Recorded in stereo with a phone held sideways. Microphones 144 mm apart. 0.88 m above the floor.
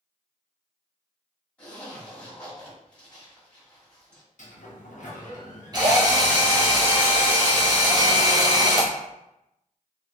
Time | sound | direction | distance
1.6 | a zipper | 10° left (ahead or behind) | 1.5 m
4.4 | a sliding door | 60° left (ahead or behind) | 0.6 m
5.7 | a drill | 30° right (ahead or behind) | 0.9 m